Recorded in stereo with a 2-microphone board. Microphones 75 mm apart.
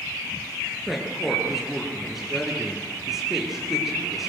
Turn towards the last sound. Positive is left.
turn(degrees=-5)  # may be behind; listen again after turning